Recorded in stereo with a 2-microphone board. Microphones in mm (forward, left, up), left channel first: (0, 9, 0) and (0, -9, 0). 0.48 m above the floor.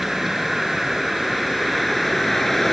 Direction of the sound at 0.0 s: 5° right (ahead or behind).